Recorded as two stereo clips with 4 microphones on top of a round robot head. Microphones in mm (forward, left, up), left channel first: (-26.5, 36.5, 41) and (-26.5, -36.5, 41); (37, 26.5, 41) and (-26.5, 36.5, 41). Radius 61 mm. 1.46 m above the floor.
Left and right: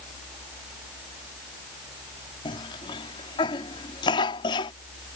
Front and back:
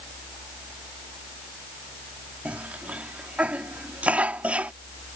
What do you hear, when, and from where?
2.5 s a cough: 100° left